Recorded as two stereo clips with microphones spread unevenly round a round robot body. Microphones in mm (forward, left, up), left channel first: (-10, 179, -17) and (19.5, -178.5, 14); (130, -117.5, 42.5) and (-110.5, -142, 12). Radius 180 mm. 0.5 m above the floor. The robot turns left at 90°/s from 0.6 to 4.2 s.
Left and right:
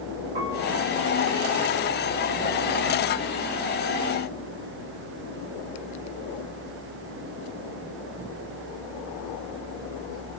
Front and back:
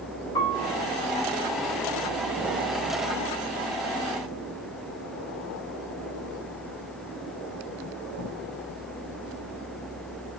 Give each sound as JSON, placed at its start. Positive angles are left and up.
{"t": 0.3, "sound": "a piano", "azimuth_deg": -65, "distance_m": 6.0}